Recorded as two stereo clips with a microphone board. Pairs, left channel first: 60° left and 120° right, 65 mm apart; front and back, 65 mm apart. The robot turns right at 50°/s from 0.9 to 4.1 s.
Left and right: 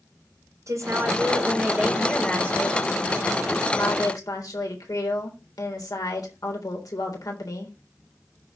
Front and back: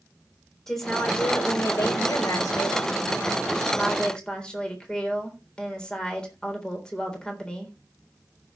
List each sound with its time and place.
0.7 s a woman speaking: 85° right, 3.5 m; by 7.8 s 75° left, 3.5 m